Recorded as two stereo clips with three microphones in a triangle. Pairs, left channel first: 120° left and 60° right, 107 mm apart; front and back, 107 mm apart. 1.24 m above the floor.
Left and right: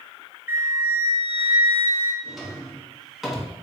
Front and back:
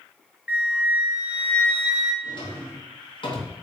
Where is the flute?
110° right, 0.6 m.